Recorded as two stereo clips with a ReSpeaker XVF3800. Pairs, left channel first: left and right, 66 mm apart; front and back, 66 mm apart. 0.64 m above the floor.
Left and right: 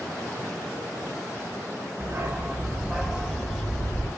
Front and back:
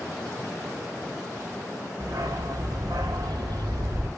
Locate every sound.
2.0 s a dog barking: 145° right, 1.5 m; by 4.1 s 170° left, 1.7 m